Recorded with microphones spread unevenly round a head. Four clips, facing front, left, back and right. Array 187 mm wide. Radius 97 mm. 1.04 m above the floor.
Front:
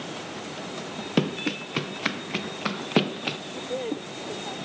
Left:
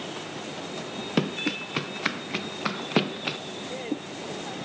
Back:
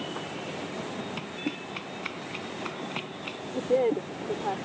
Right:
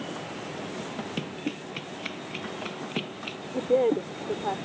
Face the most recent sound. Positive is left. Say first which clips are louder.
# right 15 dB, back 9 dB
turn(degrees=-115)